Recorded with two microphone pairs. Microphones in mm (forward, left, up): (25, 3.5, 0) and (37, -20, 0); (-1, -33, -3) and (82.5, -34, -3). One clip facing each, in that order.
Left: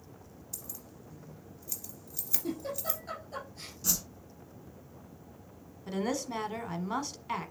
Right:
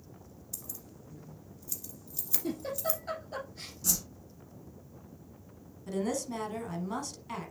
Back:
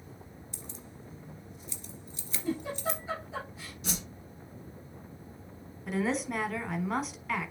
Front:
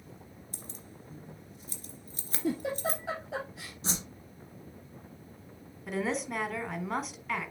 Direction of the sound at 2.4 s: 10° left.